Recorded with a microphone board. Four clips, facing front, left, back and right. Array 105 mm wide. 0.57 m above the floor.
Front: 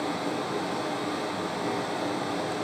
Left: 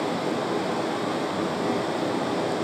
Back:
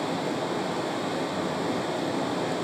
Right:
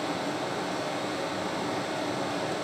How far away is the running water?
About 2 m.